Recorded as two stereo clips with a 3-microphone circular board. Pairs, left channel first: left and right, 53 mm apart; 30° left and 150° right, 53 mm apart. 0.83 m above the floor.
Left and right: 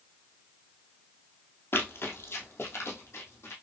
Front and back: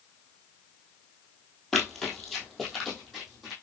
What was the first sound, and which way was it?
Running footsteps, 110° left.